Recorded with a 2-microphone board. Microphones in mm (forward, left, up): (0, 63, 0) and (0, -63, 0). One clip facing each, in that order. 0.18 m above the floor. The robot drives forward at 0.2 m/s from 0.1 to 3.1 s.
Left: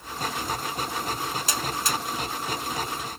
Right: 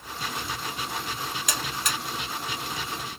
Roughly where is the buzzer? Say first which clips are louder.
Left 3 dB; left.